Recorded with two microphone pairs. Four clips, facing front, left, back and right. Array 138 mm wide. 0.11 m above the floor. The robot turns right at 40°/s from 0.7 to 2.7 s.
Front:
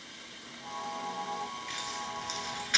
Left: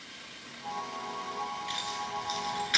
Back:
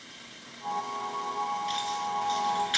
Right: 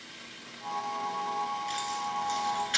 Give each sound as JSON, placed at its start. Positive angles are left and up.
{"t": 1.7, "sound": "keys jangling", "azimuth_deg": 5, "distance_m": 1.2}